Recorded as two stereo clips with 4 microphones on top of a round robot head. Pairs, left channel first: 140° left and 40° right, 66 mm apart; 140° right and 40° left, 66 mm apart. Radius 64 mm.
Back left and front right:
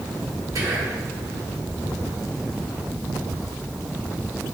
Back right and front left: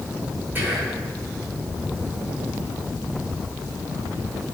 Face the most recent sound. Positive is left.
turn(degrees=-20)